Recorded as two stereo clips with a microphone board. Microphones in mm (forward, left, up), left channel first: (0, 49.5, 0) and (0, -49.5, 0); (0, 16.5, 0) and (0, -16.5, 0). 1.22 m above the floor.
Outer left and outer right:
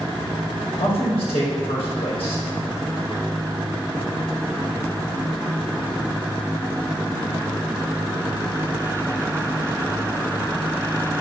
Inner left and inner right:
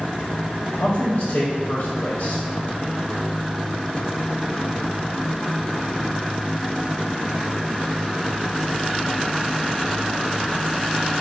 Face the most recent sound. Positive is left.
turn(degrees=60)  # may be behind; listen again after turning